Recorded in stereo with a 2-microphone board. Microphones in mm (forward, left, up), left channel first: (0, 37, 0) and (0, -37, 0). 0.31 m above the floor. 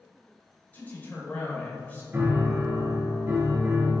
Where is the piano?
35° right (ahead or behind), 0.8 m.